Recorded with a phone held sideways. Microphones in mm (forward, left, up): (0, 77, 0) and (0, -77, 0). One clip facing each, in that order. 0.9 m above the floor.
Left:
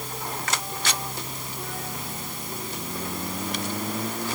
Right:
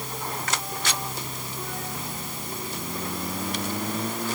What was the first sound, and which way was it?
Only background noise.